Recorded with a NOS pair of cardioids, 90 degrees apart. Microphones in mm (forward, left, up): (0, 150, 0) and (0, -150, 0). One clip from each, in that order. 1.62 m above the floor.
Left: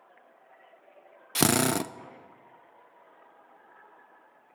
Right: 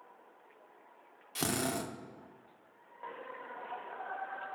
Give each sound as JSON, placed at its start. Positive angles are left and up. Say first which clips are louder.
{"t": 1.4, "sound": "a drill", "louder": "left 9 dB", "azimuth_deg": 55, "distance_m": 0.6}